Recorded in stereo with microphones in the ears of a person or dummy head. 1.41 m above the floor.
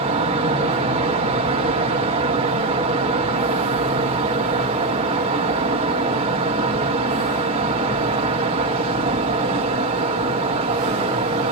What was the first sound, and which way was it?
A fan, 30° right (ahead or behind).